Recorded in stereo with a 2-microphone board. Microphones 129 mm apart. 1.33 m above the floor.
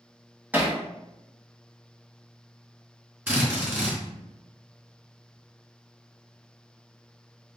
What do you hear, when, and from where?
0.5 s hammering: 15° right (ahead or behind), 0.8 m
3.3 s a drill: 20° right (ahead or behind), 1.7 m